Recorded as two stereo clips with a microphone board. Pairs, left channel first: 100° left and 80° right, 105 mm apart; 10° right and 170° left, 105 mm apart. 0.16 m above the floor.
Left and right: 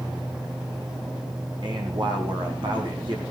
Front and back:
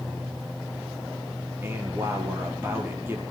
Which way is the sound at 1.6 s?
120° right.